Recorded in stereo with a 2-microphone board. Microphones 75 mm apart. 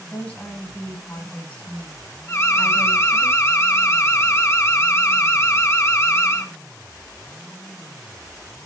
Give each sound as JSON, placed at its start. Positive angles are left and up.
{"t": 0.1, "sound": "a woman speaking", "side_deg": 15, "distance_m": 1.7}
{"t": 2.3, "sound": "an alarm", "side_deg": 35, "distance_m": 1.5}